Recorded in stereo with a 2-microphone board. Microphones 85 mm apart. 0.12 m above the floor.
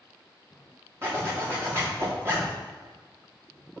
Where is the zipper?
30° right (ahead or behind), 4.5 m.